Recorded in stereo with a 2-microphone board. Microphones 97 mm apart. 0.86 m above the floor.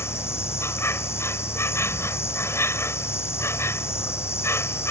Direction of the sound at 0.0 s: 25° left (ahead or behind).